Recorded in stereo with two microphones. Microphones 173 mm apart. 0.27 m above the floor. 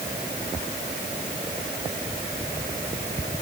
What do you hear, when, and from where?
Only background noise.